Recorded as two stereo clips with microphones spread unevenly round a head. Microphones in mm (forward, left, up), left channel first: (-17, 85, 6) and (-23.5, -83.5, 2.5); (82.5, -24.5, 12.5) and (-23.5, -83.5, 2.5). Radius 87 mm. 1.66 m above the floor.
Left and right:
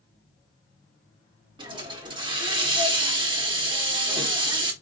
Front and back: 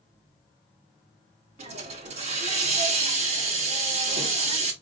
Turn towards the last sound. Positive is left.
turn(degrees=-150)